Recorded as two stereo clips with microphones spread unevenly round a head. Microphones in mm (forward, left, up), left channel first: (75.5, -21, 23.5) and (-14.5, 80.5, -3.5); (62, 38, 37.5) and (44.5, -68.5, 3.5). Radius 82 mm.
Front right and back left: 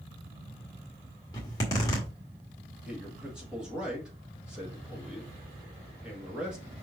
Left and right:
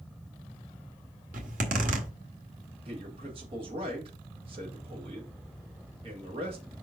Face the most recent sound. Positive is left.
turn(degrees=-145)